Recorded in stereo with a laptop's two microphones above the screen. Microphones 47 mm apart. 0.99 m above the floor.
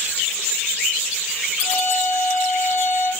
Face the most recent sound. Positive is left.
turn(degrees=65)  # may be behind; listen again after turning